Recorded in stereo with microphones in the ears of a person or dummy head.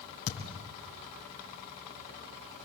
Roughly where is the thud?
Left.